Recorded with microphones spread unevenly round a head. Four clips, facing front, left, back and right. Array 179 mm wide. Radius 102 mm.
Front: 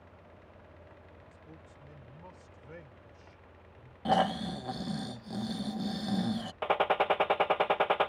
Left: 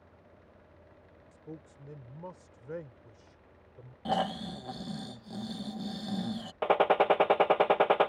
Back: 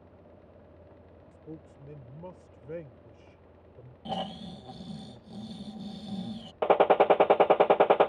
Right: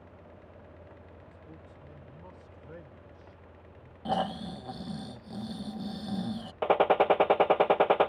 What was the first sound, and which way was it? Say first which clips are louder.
A man speaking: left 3 dB, back 7 dB; 155° left.